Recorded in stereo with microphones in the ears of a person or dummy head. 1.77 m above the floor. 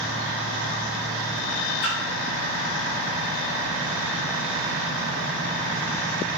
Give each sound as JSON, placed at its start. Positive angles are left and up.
{"t": 1.8, "sound": "a splash", "side_deg": 50, "distance_m": 2.5}